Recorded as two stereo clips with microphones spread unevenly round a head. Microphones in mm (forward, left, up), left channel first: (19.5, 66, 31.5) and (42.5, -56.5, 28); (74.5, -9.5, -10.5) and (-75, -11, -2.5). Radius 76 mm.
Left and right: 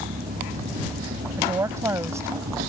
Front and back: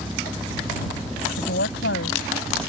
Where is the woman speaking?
10° right.